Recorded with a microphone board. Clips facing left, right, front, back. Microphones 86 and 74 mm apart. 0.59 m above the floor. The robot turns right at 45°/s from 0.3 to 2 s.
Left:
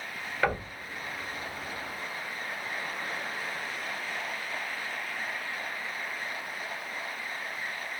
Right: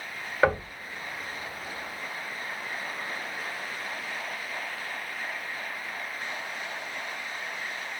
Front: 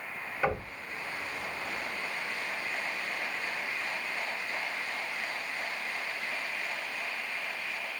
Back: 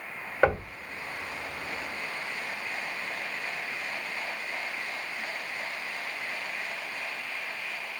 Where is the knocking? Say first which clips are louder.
Right 5 dB, back 7 dB; 155° right, 1.1 m; by 0.7 s 145° right, 1.1 m.